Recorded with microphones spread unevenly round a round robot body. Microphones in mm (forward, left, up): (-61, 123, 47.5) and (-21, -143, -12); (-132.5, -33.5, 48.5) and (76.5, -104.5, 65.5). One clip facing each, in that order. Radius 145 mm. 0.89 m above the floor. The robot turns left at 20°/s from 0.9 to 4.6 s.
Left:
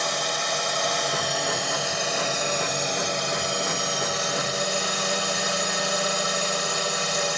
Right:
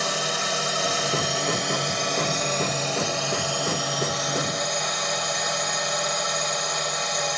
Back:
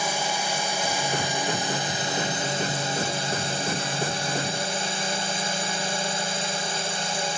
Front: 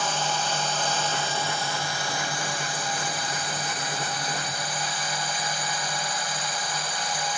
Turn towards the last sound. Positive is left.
turn(degrees=150)